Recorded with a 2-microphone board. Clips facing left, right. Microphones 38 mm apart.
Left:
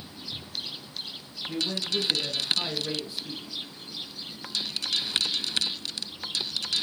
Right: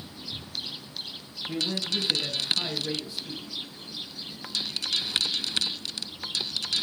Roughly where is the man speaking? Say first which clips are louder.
Even; centre.